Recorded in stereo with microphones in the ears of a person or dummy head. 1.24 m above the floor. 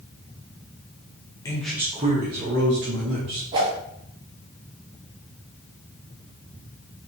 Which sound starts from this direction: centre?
A man speaking, at 1.4 s.